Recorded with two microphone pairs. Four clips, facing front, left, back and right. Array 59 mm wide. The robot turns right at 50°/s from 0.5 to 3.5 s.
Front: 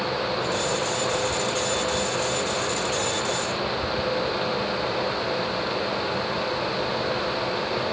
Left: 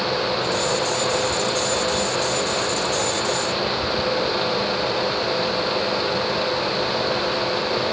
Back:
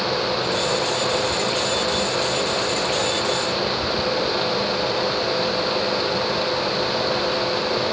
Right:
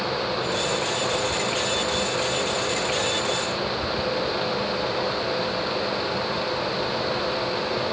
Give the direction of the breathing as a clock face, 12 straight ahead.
I don't hear breathing.